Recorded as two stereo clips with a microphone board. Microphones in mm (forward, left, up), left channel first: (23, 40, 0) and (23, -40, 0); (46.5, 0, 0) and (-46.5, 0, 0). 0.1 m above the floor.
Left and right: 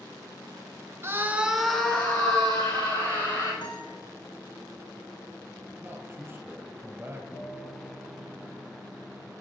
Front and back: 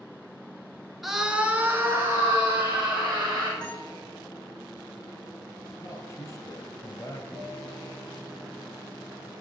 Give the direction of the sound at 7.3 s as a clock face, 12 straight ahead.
10 o'clock.